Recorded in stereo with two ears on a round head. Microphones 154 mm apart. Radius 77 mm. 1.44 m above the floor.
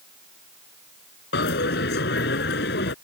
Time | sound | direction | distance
1.3 | a dropped coin | 70° left (ahead or behind) | ?